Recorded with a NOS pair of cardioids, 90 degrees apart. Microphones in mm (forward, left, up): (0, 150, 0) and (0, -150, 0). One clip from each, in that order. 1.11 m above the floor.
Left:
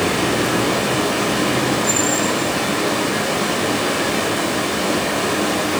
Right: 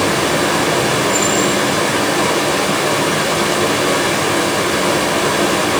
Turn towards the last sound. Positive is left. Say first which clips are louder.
# right 3 dB
turn(degrees=-40)